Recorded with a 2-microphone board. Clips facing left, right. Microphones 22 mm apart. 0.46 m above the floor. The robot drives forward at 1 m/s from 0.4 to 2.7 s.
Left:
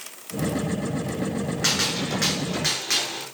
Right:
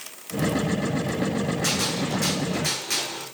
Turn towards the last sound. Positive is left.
turn(degrees=35)  # may be behind; listen again after turning